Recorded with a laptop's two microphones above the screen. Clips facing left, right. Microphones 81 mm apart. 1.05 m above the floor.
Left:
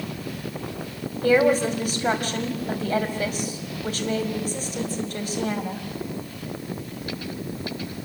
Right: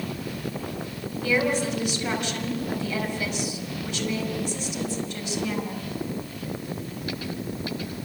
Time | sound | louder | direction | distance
1.2 | a woman speaking | left 6 dB | 45° left (ahead or behind) | 5 m